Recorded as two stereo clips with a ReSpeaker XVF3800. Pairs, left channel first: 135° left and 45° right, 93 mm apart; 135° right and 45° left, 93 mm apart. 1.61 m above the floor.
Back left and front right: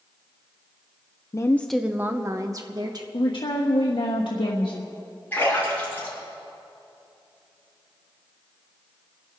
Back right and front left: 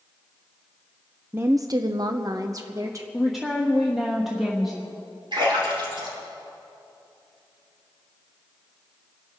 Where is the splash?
70° left, 6 m.